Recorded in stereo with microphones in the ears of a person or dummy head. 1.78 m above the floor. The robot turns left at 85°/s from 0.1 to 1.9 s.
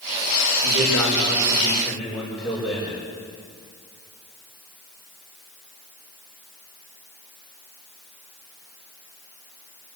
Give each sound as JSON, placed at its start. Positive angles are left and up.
{"t": 0.6, "sound": "a man speaking", "azimuth_deg": -65, "distance_m": 7.5}